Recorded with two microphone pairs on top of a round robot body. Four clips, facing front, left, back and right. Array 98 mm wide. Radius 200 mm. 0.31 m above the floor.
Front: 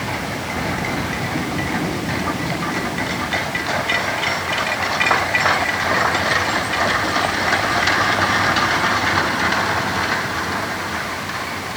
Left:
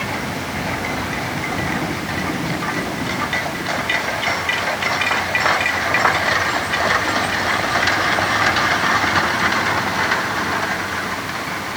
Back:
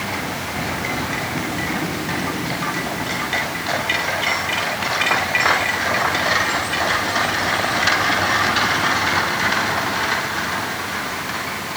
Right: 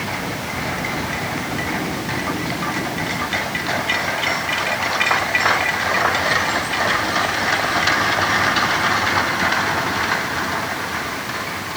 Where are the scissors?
I don't hear scissors.